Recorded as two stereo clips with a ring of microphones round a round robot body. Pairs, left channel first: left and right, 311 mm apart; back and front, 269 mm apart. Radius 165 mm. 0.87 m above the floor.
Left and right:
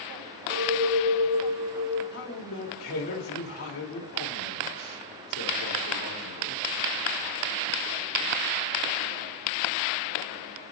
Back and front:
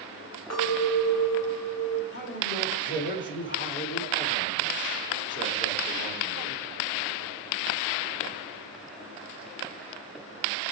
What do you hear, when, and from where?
0.5 s a clink: 140° right, 2.5 m
2.1 s a man speaking: 135° left, 3 m